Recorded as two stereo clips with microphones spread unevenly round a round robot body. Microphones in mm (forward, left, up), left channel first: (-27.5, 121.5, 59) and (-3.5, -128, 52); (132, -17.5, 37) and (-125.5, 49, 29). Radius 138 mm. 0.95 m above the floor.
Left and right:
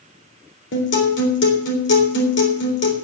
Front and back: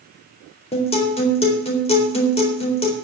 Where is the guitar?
50° left, 3.5 m.